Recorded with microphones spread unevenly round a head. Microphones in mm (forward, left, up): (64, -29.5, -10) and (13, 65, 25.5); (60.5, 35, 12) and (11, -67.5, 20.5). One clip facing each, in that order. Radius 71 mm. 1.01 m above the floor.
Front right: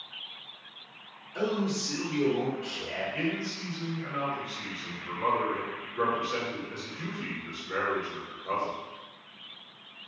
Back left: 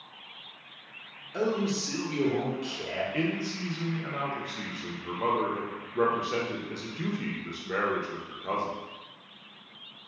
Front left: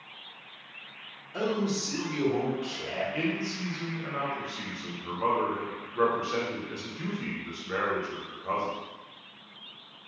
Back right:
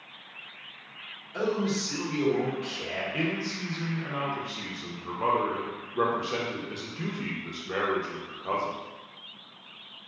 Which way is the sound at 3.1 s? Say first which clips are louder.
Back left 2 dB, even; 170° left.